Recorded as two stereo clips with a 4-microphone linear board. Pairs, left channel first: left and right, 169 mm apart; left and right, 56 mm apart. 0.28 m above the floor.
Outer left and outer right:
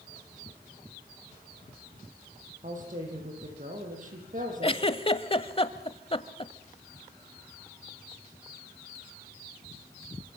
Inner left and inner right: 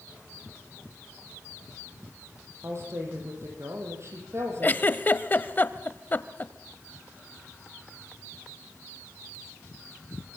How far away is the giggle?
About 1.0 m.